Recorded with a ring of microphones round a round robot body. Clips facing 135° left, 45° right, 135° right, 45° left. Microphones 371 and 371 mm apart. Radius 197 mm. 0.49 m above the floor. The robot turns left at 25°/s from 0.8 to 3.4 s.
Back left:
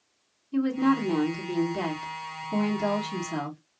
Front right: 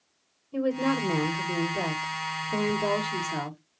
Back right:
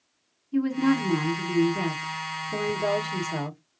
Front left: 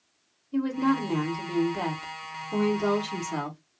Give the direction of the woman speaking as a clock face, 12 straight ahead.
7 o'clock.